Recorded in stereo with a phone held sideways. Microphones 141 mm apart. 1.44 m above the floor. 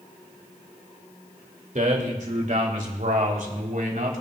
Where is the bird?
No bird in this recording.